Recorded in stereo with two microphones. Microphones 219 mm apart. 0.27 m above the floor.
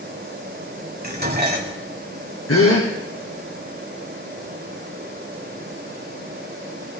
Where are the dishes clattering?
45° right (ahead or behind), 1.2 m.